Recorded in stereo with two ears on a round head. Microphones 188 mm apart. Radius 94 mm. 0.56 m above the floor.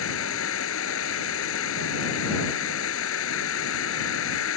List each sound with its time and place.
0.0 s an insect: 70° left (ahead or behind)